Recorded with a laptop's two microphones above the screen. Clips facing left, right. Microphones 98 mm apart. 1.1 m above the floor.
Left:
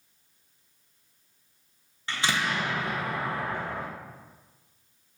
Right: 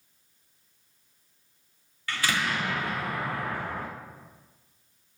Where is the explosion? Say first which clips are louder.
Even; 25° left (ahead or behind), 0.6 m.